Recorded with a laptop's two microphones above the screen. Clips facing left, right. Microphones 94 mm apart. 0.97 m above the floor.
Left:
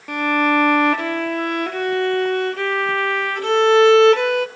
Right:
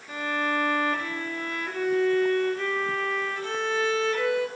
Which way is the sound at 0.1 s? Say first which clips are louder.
Left 10 dB; 75° left (ahead or behind).